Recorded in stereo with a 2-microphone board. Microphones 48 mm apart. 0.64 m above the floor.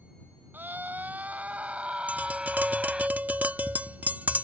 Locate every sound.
0.5 s a scream: 45° right (ahead or behind); by 3.1 s 15° right (ahead or behind)
2.1 s tapping: 35° right (ahead or behind)